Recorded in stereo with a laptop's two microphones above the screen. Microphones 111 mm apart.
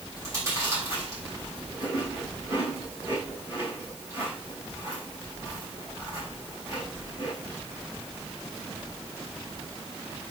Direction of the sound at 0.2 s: 25° right (ahead or behind).